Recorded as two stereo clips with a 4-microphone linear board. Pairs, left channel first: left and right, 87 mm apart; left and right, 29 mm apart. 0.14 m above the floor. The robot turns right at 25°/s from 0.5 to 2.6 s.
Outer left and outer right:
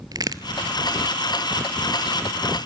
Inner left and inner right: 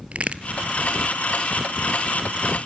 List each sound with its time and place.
0.1 s a crack: 50° right (ahead or behind), 0.7 m